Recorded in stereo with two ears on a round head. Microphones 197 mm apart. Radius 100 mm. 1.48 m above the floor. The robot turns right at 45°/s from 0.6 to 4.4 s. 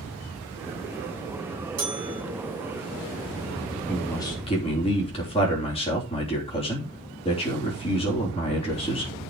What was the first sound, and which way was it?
A bell, 85° right.